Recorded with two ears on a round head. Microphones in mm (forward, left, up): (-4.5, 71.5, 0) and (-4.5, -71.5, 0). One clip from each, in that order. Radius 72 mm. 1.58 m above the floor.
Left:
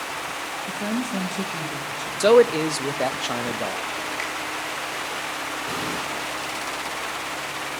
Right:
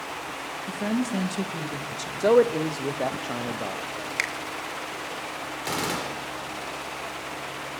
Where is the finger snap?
50° right (ahead or behind), 1.9 m.